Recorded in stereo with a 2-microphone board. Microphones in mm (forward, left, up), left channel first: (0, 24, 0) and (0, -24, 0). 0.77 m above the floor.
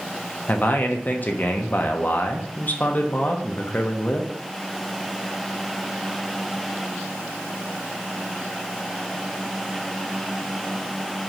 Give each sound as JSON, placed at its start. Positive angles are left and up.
{"t": 0.5, "sound": "a man speaking", "side_deg": 40, "distance_m": 0.6}